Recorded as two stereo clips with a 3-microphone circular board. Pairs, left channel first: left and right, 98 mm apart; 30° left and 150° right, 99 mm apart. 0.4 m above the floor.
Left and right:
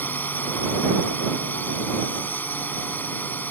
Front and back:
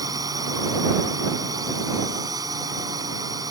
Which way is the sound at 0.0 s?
160° left.